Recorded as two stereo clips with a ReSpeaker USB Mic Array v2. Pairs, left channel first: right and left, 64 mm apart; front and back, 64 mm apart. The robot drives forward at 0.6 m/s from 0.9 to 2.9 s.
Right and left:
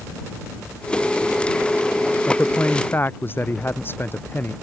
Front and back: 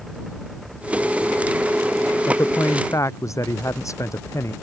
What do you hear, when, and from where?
2.3 s a man speaking: 30° right; by 4.5 s 35° right